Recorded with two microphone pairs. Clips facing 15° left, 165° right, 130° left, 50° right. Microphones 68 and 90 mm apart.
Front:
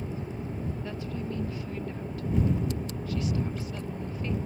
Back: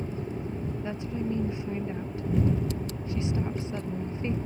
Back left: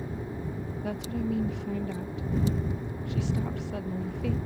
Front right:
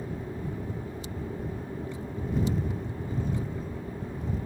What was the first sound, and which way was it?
A woman speaking, 125° left.